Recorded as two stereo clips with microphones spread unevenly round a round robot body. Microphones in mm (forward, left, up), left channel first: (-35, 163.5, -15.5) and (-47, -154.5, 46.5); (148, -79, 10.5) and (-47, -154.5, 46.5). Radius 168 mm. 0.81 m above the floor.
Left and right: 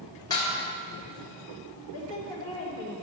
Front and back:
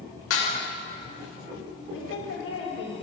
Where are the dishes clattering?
10° left, 2 m.